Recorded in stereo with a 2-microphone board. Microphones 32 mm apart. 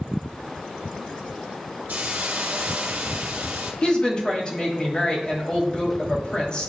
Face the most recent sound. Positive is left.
turn(degrees=30)  # may be behind; listen again after turning